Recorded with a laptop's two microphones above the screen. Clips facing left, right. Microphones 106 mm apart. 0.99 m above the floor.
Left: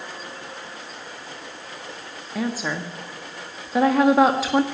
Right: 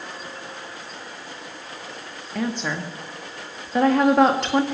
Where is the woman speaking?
5° left (ahead or behind), 1.8 m.